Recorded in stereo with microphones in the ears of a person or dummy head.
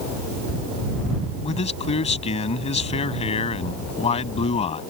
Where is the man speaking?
35° left (ahead or behind).